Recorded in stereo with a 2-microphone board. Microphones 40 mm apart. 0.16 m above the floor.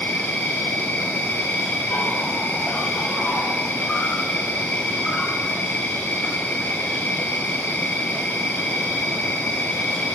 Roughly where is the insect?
Left.